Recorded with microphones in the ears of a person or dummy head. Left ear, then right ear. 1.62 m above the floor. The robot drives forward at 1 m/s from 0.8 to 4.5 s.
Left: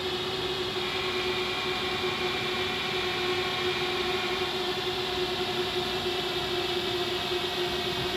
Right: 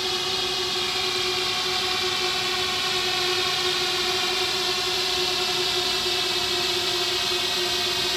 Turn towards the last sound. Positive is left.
turn(degrees=-35)  # may be behind; listen again after turning